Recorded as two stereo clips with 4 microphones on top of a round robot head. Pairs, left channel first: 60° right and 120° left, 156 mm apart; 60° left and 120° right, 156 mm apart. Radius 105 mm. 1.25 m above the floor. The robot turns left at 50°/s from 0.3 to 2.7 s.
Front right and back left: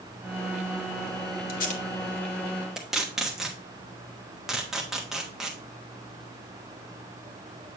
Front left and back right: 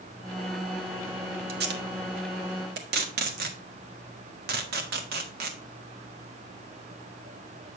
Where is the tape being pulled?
90° right, 1.1 m; by 5.6 s 150° right, 1.1 m.